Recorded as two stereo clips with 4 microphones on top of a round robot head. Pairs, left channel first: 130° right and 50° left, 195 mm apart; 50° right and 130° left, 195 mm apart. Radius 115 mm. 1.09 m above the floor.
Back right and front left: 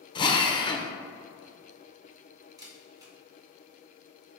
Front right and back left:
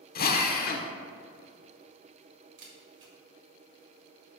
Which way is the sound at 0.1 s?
70° right.